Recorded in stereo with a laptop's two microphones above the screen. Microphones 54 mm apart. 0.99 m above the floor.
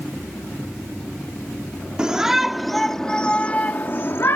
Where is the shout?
15° right (ahead or behind); by 4.4 s 50° left (ahead or behind).